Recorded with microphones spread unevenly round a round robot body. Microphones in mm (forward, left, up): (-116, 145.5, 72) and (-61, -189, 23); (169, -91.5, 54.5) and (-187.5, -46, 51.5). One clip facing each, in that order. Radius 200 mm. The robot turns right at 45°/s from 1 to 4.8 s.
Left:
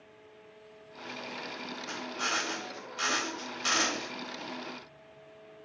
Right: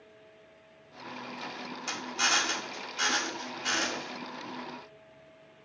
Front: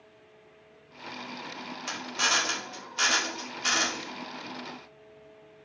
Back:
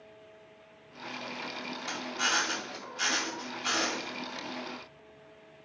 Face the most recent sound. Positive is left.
turn(degrees=90)